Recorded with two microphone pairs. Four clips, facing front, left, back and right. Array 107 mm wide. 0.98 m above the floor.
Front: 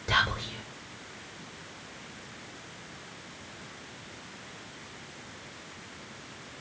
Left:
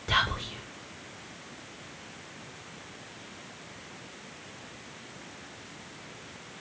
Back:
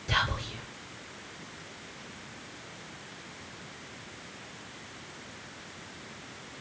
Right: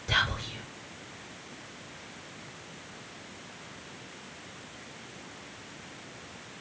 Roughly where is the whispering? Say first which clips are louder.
Left 2 dB, front 2 dB; ahead left.